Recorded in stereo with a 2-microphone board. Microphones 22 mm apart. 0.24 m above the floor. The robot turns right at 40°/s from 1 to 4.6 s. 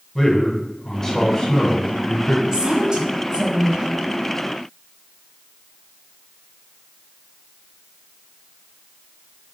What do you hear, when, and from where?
0.1 s a man speaking: 30° left, 1.9 m; by 2.4 s 85° left, 1.9 m
2.5 s a woman speaking: 130° right, 1.5 m; by 3.9 s 75° right, 1.5 m